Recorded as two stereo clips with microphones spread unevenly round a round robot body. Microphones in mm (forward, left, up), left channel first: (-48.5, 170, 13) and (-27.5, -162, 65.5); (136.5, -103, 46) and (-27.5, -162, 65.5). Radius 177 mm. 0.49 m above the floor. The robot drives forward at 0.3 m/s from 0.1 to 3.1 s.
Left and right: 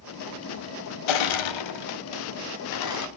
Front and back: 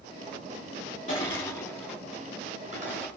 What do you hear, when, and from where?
1.1 s crushing: 90° left, 0.6 m; by 3.1 s 135° left, 0.9 m